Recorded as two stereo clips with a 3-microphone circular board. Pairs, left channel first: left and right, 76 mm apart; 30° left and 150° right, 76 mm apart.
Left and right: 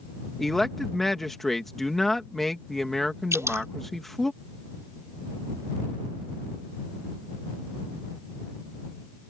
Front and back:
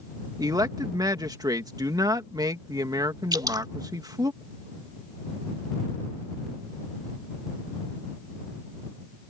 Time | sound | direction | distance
0.4 | a man speaking | 175° left | ?
3.3 | dripping | 135° right | ?